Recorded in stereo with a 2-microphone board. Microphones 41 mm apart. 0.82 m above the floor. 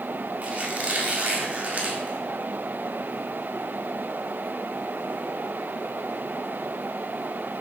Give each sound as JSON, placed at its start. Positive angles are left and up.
{"t": 0.4, "sound": "a squeak", "side_deg": -35, "distance_m": 1.5}